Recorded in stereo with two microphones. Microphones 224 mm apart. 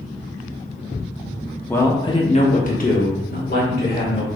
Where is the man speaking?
10° left (ahead or behind), 0.8 m; by 4.3 s 50° left (ahead or behind), 2 m.